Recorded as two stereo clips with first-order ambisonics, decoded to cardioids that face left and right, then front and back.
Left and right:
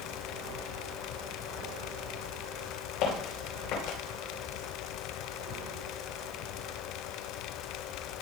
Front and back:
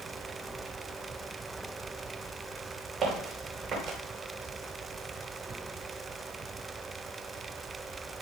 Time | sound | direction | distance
3.0 | footsteps | 105° left | 6.5 m